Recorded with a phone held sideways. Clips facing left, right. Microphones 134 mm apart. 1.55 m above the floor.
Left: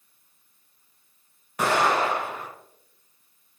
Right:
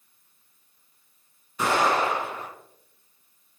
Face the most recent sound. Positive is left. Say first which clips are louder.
# left 1 dB
turn(degrees=70)  # may be behind; listen again after turning